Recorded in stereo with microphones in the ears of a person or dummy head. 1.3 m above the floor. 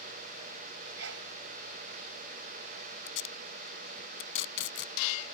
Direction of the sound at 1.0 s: 80° right.